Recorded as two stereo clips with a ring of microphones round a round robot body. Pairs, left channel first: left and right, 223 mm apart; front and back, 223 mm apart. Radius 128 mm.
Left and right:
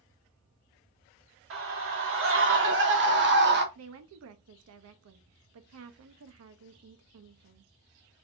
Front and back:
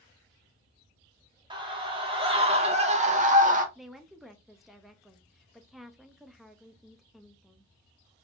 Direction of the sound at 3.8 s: 90° right.